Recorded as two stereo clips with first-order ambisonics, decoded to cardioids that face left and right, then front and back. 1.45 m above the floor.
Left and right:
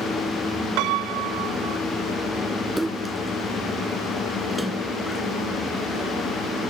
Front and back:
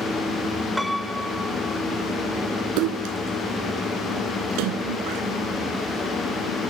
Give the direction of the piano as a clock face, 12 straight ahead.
3 o'clock.